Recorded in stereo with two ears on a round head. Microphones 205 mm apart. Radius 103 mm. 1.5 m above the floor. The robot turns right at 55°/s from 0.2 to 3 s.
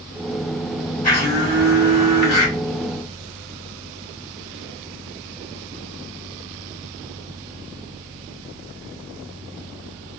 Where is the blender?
35° left, 2.5 m; by 2.5 s 120° left, 2.5 m.